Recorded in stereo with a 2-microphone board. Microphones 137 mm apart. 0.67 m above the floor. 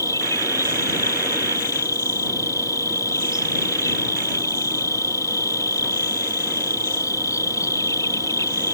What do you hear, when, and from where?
0.0 s an insect: 25° left (ahead or behind)